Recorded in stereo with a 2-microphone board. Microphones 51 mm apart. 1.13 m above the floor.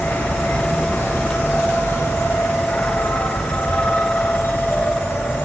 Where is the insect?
60° left (ahead or behind), 2.5 m.